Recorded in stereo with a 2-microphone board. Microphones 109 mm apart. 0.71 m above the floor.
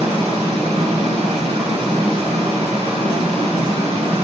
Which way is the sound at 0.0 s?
60° right (ahead or behind).